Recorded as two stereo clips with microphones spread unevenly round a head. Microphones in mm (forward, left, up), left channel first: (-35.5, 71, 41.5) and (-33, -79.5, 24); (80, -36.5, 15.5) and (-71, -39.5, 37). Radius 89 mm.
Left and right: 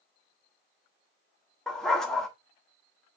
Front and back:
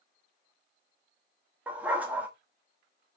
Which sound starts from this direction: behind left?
A dog barking, at 1.7 s.